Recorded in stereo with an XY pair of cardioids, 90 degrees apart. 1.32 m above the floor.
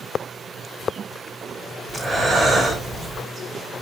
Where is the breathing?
10° right, 4 m.